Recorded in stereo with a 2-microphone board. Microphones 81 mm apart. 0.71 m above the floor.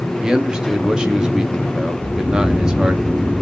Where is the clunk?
No clunk in this recording.